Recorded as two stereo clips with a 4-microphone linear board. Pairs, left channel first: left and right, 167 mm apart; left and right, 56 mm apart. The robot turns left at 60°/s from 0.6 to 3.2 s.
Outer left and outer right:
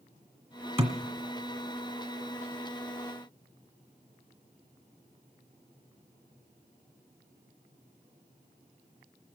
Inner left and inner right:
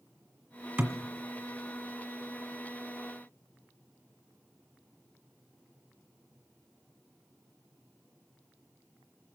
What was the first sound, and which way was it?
A thud, 40° right (ahead or behind).